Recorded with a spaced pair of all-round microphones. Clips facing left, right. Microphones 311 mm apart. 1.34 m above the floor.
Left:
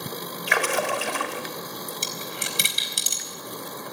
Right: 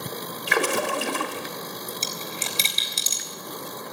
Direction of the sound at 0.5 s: 45° right (ahead or behind).